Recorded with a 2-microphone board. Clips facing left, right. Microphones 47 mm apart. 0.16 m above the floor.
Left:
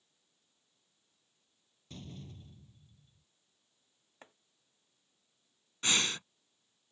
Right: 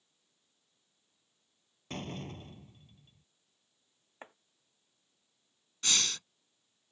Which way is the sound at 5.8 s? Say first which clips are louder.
Left 2 dB; 20° left (ahead or behind).